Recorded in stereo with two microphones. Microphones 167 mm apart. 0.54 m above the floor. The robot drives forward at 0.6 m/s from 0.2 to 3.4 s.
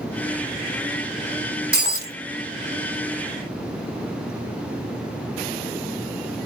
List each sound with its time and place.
1.7 s breaking glass: 75° right (ahead or behind), 1.7 m; by 2.1 s 80° right, 1.7 m